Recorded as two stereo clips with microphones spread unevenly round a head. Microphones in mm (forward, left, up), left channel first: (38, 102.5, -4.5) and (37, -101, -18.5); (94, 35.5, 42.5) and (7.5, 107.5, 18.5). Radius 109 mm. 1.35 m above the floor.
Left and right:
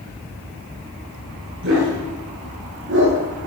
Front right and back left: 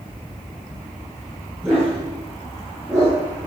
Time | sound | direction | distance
1.6 | a dog barking | 130° right | 10 m